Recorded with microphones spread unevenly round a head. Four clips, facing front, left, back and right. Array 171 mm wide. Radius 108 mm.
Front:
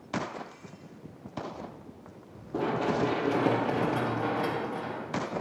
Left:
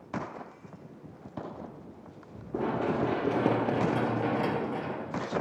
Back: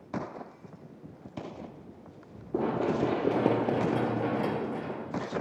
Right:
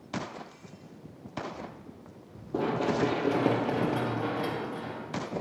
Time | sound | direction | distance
2.5 | running footsteps | 160° right | 2.5 m